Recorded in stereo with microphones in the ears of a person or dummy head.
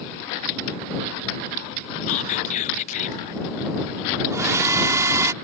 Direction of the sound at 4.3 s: 10° right (ahead or behind).